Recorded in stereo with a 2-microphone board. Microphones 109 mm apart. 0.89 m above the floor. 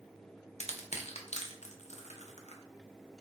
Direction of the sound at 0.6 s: 80° left.